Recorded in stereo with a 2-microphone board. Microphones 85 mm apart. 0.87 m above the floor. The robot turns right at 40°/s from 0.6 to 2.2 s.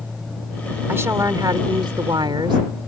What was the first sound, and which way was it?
A woman speaking, 150° right.